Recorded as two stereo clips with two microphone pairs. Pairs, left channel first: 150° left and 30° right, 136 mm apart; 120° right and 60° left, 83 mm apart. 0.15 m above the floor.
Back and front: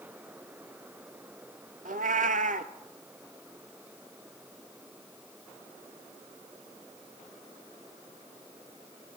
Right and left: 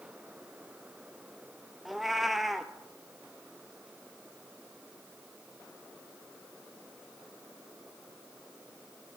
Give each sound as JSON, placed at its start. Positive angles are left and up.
{"t": 1.9, "sound": "a cat meowing", "azimuth_deg": -30, "distance_m": 0.5}